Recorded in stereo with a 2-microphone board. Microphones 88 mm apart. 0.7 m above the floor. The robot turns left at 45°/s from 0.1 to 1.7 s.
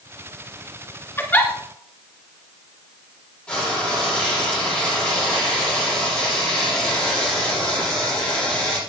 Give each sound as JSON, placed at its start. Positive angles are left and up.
{"t": 1.2, "sound": "a giggle", "side_deg": 30, "distance_m": 2.5}
{"t": 3.5, "sound": "frying", "side_deg": 10, "distance_m": 8.0}